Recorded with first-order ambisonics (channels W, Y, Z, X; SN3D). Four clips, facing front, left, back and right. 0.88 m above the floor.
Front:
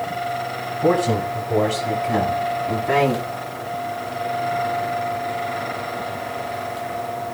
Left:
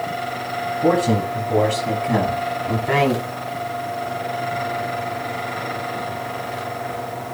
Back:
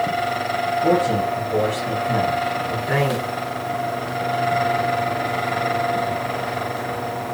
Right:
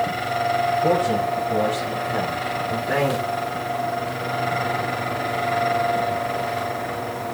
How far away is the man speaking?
About 6 m.